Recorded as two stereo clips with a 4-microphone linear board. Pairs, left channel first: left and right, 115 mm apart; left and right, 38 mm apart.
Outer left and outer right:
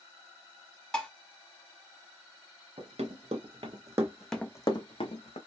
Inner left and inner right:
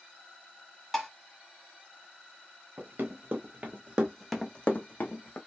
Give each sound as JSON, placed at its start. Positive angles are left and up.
{"t": 0.9, "sound": "dishes clattering", "side_deg": 5, "distance_m": 0.9}
{"t": 2.8, "sound": "running footsteps", "side_deg": -65, "distance_m": 1.5}